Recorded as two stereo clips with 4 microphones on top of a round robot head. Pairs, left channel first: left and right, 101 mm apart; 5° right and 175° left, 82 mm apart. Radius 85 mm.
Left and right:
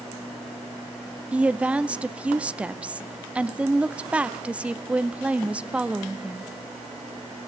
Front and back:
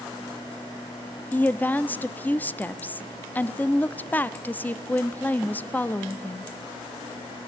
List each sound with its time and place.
1.3 s a woman speaking: 30° right, 0.6 m